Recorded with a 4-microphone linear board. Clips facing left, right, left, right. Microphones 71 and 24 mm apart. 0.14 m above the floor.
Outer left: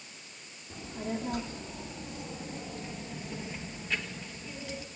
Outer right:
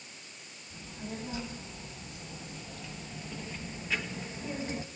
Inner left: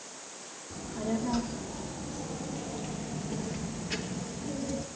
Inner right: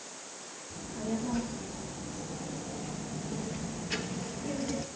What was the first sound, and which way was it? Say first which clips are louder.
A child speaking: outer left 6 dB, inner left 2 dB; 60° left (ahead or behind).